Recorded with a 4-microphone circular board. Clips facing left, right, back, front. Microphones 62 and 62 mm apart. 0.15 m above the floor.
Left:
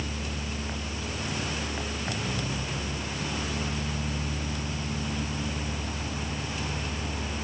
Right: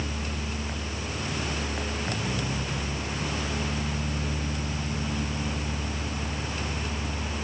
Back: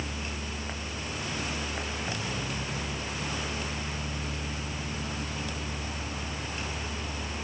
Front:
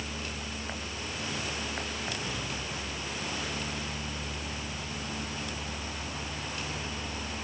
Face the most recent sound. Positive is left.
No sound to turn to.